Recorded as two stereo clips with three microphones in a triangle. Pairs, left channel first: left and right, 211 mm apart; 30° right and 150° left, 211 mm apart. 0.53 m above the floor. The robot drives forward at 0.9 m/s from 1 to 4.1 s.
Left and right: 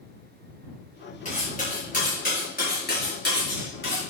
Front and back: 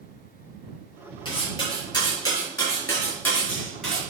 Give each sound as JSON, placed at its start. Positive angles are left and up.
{"t": 1.2, "sound": "cutlery clinking", "azimuth_deg": 35, "distance_m": 5.5}